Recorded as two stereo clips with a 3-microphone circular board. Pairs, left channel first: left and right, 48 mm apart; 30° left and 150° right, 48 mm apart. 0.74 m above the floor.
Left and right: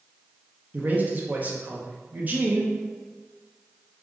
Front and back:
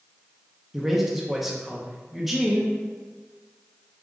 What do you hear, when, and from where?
0.7 s a man speaking: 65° right, 0.6 m